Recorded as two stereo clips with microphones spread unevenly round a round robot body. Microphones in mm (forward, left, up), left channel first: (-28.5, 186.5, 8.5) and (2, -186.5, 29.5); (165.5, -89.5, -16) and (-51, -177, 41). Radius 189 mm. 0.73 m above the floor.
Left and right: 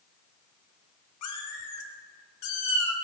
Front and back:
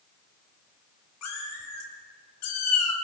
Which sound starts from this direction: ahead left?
A cat meowing, at 1.2 s.